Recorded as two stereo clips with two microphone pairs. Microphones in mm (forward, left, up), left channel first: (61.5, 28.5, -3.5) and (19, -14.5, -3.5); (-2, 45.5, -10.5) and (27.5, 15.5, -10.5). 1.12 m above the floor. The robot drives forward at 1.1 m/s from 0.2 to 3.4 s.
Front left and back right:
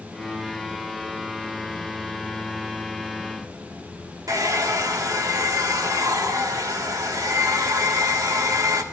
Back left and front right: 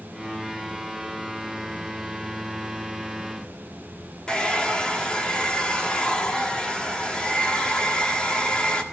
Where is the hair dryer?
155° right, 1.5 m.